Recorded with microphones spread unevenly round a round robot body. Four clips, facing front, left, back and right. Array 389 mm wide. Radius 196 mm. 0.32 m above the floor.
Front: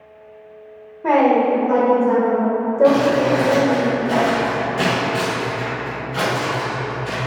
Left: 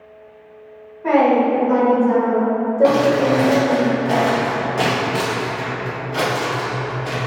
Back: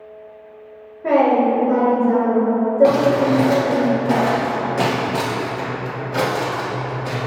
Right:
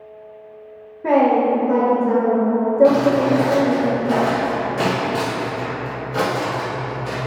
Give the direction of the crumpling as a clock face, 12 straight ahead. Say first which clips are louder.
Left 2 dB, front 2 dB; 7 o'clock.